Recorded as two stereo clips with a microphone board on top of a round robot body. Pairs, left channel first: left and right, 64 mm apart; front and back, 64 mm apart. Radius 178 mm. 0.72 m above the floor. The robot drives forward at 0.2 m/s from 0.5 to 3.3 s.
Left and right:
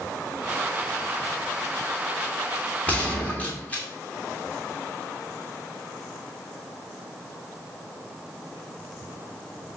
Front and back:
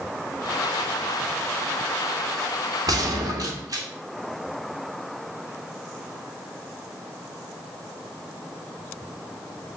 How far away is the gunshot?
About 2 m.